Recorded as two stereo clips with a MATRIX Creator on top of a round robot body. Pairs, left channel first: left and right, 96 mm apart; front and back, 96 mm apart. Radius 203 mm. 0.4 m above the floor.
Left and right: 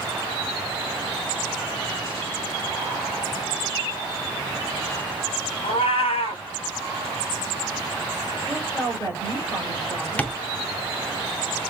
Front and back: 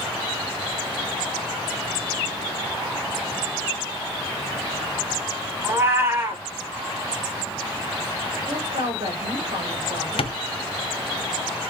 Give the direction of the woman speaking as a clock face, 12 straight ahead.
7 o'clock.